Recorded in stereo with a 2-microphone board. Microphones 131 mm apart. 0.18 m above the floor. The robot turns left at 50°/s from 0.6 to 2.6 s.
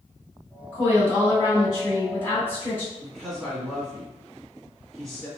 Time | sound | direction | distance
0.7 | a woman speaking | 15° left (ahead or behind) | 1.7 m
3.0 | a woman speaking | 5° left (ahead or behind) | 1.5 m